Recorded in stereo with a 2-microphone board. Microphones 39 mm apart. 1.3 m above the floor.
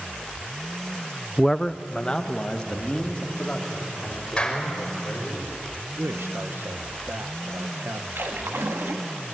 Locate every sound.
1.4 s a man speaking: 10° left (ahead or behind), 0.5 m; by 5.4 s 30° left (ahead or behind), 6.5 m
4.4 s a clap: 25° left (ahead or behind), 5 m
6.0 s a man speaking: 70° right (ahead or behind), 1.2 m
8.2 s a splash: 85° right, 2 m